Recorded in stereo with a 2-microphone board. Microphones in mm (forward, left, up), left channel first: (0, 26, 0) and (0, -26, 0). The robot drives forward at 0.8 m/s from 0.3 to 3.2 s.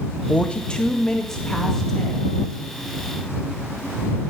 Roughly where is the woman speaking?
Left.